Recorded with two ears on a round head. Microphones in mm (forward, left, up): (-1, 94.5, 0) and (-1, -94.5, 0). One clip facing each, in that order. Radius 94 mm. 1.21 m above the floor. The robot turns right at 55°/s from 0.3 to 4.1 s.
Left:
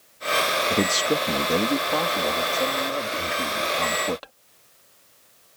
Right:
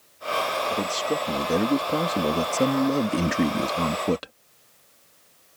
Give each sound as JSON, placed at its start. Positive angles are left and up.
{"t": 0.7, "sound": "a man speaking", "azimuth_deg": 135}